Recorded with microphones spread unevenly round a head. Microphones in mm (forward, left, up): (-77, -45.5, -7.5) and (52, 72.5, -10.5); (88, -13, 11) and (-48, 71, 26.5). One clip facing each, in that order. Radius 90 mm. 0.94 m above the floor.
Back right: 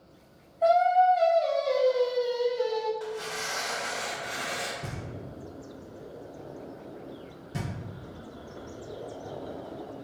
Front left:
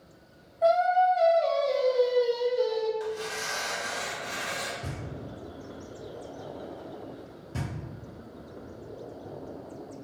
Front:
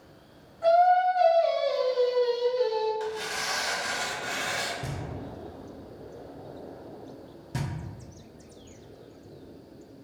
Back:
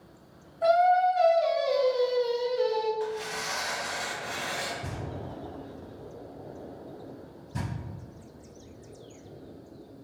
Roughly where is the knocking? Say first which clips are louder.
Front left 1 dB, front 1 dB; ahead right.